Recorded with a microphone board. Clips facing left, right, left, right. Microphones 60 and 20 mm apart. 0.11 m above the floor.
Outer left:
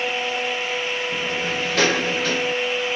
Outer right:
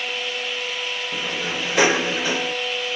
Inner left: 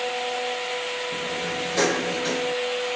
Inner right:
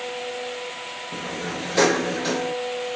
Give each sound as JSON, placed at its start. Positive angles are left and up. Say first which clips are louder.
{"t": 1.1, "sound": "a sliding door", "louder": "outer left 2 dB, inner left 2 dB", "side_deg": -15, "distance_m": 0.8}